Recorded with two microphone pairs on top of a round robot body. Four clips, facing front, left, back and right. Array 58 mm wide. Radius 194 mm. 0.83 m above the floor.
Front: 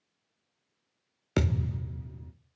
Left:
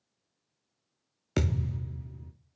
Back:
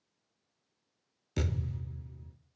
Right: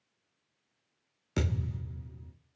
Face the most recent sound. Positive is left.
turn(degrees=20)